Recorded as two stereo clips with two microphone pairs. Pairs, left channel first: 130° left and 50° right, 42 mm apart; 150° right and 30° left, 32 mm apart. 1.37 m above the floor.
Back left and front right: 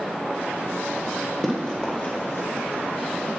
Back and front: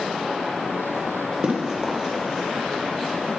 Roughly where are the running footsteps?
Left.